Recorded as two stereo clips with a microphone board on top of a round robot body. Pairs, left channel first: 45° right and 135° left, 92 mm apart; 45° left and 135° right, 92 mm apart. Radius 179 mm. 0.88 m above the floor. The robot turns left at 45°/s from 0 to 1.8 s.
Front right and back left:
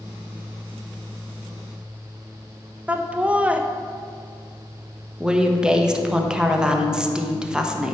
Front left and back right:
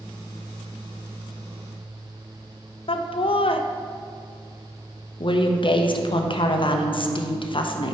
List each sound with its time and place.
2.9 s laughter: 60° left, 0.9 m
5.2 s a woman speaking: 55° left, 1.3 m